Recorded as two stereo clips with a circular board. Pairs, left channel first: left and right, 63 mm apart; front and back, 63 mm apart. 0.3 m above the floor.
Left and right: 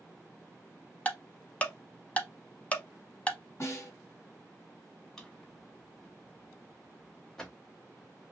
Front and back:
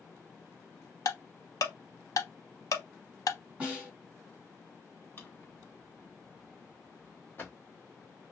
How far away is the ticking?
About 0.6 m.